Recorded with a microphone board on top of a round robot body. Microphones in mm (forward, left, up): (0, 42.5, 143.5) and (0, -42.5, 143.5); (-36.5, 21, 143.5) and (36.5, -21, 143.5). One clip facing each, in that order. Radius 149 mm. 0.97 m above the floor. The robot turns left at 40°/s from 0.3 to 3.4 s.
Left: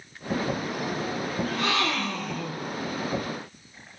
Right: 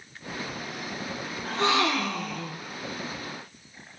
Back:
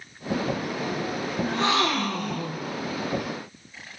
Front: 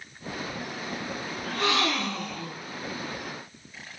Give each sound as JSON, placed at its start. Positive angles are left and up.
{"t": 1.4, "sound": "a gasp", "azimuth_deg": -145, "distance_m": 0.9}